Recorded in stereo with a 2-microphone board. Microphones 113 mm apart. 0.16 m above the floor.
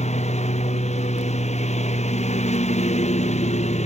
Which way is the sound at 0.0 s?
80° left.